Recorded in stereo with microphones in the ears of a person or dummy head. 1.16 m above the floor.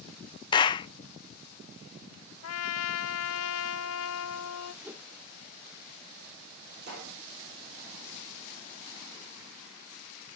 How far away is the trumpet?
About 0.7 m.